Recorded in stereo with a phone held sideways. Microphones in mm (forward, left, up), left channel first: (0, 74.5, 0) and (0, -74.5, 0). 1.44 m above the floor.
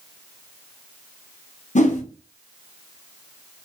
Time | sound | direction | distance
1.8 | a whoosh | 55° left (ahead or behind) | 0.6 m